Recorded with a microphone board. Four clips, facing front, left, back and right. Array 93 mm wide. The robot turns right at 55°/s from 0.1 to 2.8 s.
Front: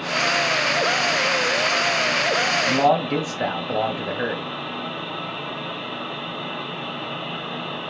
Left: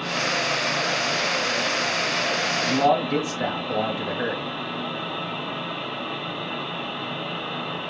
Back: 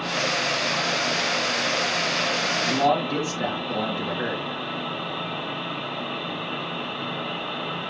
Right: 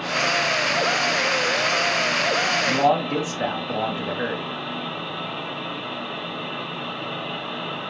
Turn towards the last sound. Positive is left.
turn(degrees=-20)